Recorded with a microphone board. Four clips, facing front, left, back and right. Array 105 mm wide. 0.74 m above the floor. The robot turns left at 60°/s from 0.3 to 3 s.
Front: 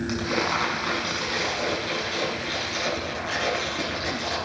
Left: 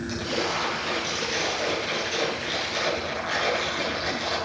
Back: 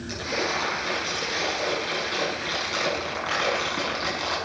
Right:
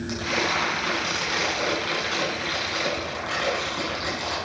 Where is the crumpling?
5° right, 7.5 m; by 4.4 s 170° right, 7.5 m.